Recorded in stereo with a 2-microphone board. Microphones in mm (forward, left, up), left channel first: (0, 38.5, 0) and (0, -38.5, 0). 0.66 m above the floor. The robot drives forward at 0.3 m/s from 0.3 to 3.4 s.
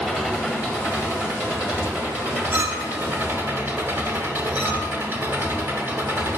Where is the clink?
25° right (ahead or behind), 0.9 m; by 4.9 s 20° right (ahead or behind), 1.1 m.